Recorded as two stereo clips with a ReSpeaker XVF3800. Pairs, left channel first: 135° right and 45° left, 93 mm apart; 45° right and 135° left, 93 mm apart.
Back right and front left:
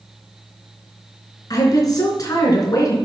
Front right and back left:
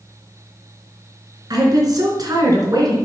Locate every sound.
1.5 s a woman speaking: straight behind, 3.5 m